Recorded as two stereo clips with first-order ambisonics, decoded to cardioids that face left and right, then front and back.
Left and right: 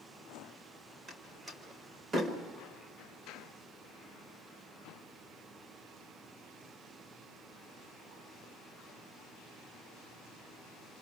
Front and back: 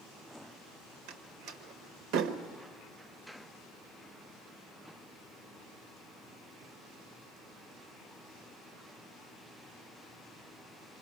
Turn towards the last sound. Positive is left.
turn(degrees=-160)